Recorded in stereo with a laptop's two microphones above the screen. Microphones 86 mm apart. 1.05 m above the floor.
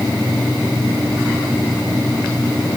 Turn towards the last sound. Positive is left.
No sound to turn to.